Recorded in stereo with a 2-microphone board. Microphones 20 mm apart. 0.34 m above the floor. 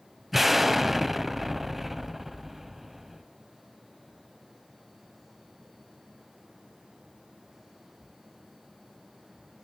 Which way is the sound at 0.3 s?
10° right (ahead or behind).